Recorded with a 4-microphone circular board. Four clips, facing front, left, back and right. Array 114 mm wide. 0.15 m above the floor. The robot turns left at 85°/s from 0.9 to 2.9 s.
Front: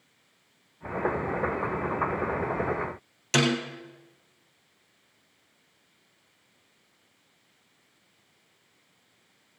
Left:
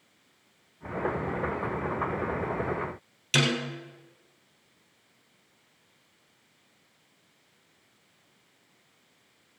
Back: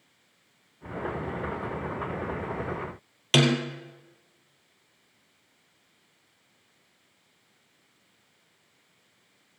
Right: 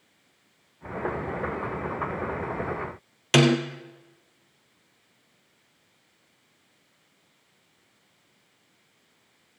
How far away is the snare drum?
About 1.7 m.